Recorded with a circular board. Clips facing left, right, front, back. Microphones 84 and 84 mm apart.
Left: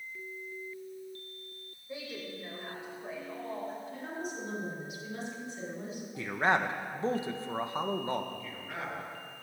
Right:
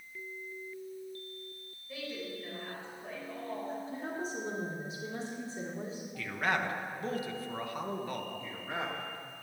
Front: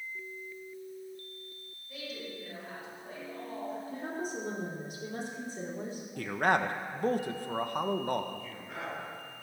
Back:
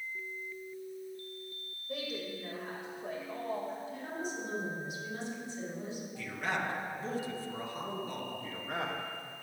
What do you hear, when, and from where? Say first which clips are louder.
1.9 s a woman speaking: right 1 dB, back 4 dB; 155° left, 5.5 m; by 3.8 s 175° left, 5.5 m
3.9 s a woman speaking: right 1 dB, front 2 dB; 35° right, 4.5 m
6.2 s a man speaking: left 4 dB, front 8 dB; 30° left, 1.2 m
8.4 s a man speaking: right 2 dB, back 3 dB; 150° right, 2.5 m